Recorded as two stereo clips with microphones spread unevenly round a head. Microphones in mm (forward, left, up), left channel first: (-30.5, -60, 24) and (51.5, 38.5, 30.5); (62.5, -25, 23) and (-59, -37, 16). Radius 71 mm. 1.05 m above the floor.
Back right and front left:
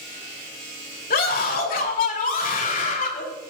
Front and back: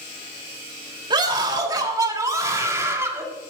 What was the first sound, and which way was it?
A scream, 120° right.